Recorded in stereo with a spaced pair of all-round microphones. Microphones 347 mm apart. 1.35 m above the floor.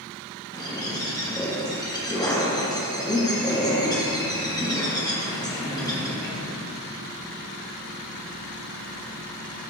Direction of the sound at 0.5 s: 10° left (ahead or behind).